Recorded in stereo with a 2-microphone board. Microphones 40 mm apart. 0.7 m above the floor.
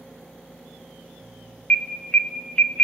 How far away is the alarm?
About 0.8 m.